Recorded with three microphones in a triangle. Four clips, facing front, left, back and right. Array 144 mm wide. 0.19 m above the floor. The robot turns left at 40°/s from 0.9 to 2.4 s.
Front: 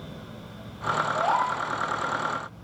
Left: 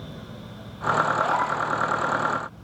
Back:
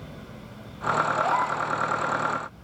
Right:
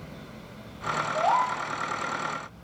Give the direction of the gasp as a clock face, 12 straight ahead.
2 o'clock.